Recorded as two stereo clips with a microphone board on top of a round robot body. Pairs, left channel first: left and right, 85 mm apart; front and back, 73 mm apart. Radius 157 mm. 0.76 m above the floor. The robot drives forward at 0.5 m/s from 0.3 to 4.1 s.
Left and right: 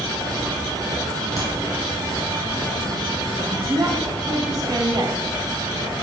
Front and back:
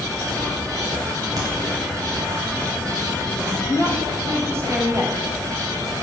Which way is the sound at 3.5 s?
120° right.